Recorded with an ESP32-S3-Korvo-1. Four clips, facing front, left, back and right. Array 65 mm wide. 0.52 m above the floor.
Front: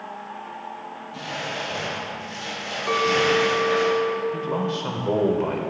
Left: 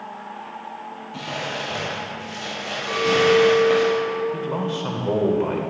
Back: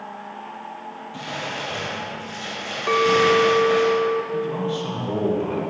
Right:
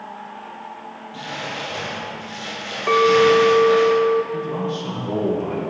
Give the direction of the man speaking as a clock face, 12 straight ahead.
11 o'clock.